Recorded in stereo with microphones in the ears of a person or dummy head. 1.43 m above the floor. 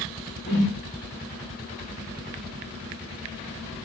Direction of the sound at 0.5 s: 30° left (ahead or behind).